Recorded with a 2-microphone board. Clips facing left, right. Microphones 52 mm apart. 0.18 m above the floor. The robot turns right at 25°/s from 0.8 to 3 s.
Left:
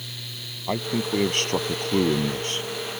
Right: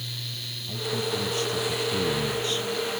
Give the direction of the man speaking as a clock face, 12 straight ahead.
9 o'clock.